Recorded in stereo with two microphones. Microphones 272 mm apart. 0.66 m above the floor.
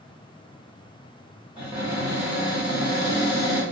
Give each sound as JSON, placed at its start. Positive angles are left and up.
{"t": 1.6, "sound": "a cupboard door", "side_deg": -15, "distance_m": 1.4}